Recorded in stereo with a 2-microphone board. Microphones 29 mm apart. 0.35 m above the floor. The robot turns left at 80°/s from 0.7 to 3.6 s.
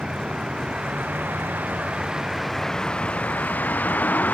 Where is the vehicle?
35° right; by 4.3 s 90° left.